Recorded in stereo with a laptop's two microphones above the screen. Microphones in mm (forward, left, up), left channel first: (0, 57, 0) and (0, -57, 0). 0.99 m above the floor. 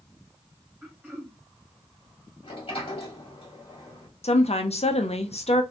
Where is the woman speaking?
65° left (ahead or behind), 0.6 m.